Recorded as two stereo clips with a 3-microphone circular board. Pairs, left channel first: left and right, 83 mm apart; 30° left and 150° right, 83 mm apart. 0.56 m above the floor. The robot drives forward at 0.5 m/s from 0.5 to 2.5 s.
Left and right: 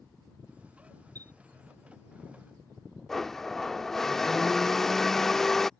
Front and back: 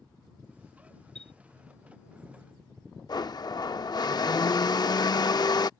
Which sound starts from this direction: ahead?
A blender, at 3.1 s.